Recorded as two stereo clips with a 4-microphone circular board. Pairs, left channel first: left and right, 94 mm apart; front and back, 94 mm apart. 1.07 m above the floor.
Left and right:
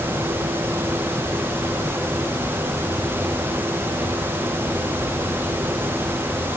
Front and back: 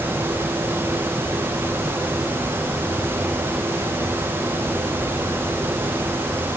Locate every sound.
Only background noise.